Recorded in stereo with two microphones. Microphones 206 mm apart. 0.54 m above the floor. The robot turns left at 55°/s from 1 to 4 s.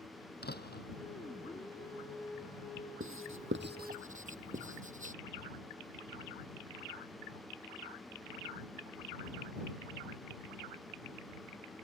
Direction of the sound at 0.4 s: 50° left (ahead or behind).